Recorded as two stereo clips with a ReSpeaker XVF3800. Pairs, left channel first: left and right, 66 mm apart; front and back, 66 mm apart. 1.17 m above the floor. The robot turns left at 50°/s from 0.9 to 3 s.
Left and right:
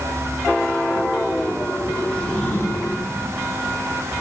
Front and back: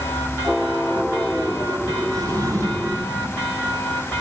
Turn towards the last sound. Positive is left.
turn(degrees=125)